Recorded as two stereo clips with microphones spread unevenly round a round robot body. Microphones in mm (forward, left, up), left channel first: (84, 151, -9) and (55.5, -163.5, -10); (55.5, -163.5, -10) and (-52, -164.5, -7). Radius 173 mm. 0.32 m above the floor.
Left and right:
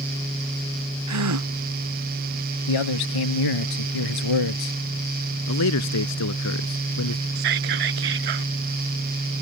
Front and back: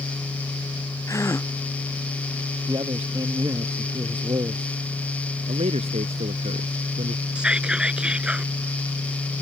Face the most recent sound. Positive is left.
turn(degrees=-100)